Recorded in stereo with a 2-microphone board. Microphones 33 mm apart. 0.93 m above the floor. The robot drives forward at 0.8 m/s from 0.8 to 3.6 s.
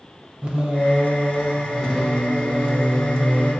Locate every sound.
0.4 s singing: 35° right (ahead or behind), 0.6 m; by 3.5 s 5° right (ahead or behind), 2.5 m